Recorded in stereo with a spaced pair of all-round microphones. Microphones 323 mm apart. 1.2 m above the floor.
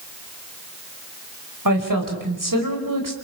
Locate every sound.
1.6 s a woman speaking: 80° right, 5 m